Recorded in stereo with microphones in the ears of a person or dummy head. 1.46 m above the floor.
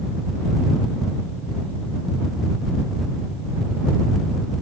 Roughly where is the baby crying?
I don't hear a baby crying.